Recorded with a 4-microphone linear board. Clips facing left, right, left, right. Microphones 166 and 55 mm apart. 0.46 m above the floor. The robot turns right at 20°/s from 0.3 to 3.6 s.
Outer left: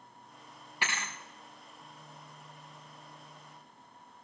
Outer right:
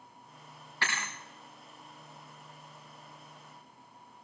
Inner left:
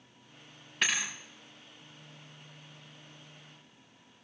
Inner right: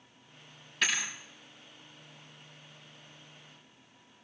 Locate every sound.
0.8 s a thud: 15° left (ahead or behind), 4.5 m; by 1.1 s 20° left (ahead or behind), 4.5 m